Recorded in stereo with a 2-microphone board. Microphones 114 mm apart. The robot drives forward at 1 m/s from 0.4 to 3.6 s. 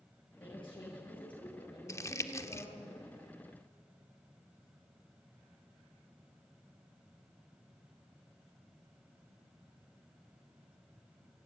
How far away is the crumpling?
About 0.9 m.